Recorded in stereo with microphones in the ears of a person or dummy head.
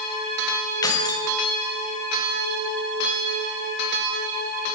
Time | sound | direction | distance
0.8 | keys jangling | 20° left (ahead or behind) | 0.9 m